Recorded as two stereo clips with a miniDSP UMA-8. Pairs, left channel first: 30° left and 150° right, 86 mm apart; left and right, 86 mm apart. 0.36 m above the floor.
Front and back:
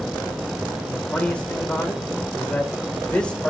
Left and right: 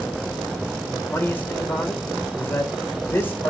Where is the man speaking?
90° left, 1.3 m.